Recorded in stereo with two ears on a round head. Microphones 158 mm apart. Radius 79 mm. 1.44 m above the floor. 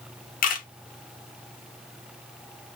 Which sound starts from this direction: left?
A camera shutter, at 0.4 s.